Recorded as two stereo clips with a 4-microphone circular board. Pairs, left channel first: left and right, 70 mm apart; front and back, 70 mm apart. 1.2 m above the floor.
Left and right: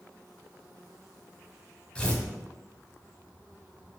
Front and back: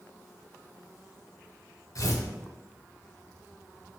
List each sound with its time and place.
1.9 s tearing paper: 15° left, 1.6 m